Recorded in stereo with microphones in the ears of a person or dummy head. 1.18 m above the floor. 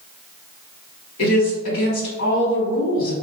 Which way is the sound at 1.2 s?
80° left.